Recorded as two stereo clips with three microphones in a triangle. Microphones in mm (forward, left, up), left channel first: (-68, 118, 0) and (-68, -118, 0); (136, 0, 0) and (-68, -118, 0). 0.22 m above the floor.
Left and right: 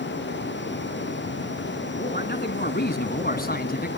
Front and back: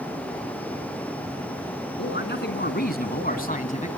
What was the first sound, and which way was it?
A man speaking, 50° left.